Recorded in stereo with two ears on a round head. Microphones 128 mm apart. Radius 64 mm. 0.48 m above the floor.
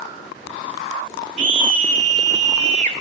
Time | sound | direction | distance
1.4 | a scream | 55° right (ahead or behind) | 2 m